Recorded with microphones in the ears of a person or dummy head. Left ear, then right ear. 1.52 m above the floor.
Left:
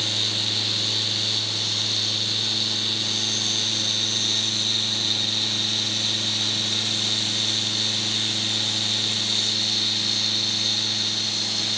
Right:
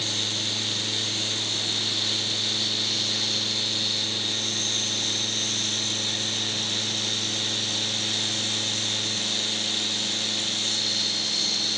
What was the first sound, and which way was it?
Only background noise.